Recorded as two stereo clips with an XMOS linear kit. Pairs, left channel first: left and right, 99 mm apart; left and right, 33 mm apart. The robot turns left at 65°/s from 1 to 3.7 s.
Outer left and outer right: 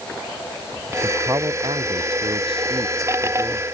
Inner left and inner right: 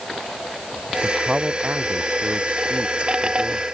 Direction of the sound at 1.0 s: 15° right.